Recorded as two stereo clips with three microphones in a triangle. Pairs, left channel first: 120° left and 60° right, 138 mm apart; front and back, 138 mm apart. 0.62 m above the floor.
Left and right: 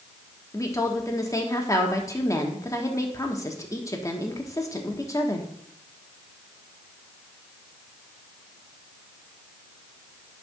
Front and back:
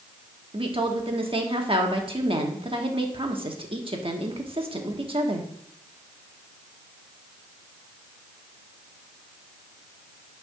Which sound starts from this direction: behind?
A woman speaking, at 0.5 s.